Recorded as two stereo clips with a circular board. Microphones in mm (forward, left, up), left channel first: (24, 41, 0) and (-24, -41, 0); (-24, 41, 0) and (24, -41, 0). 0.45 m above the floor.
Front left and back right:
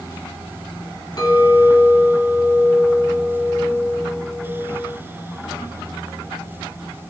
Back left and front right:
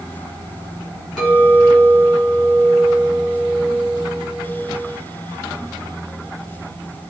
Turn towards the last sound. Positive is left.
turn(degrees=35)